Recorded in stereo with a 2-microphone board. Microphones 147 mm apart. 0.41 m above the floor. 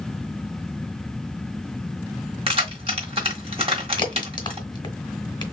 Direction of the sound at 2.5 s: 40° right (ahead or behind).